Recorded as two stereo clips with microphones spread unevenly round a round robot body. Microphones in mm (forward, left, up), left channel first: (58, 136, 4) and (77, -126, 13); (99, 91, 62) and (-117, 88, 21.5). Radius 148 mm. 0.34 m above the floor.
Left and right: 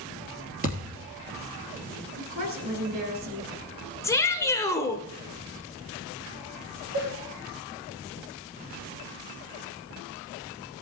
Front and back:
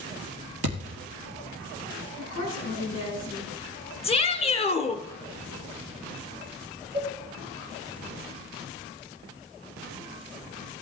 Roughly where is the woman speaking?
Ahead right.